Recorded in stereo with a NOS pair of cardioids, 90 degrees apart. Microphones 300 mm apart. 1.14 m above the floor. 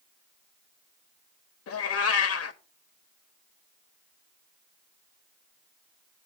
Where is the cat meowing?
55° left, 1.1 m.